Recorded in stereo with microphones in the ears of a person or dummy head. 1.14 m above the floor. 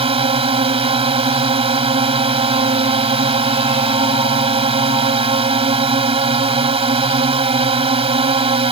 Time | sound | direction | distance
0.0 | a drone | 25° right (ahead or behind) | ?